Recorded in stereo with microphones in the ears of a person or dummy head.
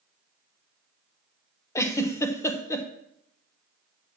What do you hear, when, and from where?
1.8 s a giggle: 15° left (ahead or behind), 1.0 m